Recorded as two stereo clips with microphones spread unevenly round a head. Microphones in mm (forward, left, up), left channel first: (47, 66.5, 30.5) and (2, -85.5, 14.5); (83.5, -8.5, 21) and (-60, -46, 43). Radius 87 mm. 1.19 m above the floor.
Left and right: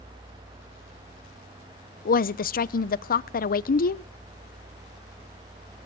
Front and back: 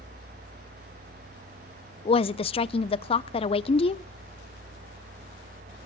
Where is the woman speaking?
50° left, 0.6 m.